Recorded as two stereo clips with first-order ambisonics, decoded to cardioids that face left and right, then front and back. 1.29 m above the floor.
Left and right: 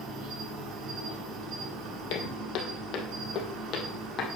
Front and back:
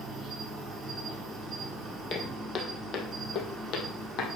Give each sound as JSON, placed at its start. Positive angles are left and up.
{"t": 0.0, "sound": "an insect", "azimuth_deg": -95, "distance_m": 7.0}
{"t": 2.1, "sound": "footsteps", "azimuth_deg": 60, "distance_m": 2.5}